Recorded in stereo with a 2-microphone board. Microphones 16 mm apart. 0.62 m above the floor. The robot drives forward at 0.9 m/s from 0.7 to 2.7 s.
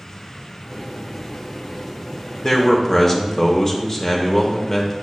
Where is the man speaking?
15° left (ahead or behind), 0.6 m; by 5.0 s 20° left (ahead or behind), 0.6 m.